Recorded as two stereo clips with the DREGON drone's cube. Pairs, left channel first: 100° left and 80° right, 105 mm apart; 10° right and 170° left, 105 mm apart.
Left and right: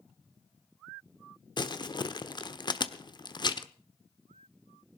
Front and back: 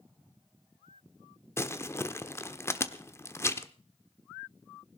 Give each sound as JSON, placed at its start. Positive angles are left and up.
{"t": 1.6, "sound": "crumpling", "azimuth_deg": 55, "distance_m": 1.1}